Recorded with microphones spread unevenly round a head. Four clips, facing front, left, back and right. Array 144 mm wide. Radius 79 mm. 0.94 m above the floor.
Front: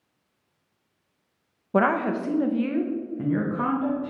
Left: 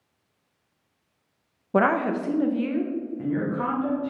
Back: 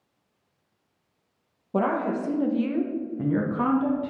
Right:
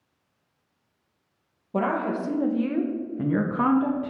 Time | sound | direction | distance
1.7 | a woman speaking | 15° left | 0.9 m